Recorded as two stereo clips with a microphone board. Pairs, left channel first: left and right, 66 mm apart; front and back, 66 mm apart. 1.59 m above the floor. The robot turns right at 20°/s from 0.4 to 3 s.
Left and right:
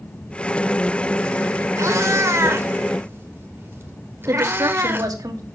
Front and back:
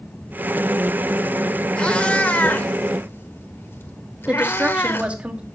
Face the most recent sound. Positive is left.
turn(degrees=-110)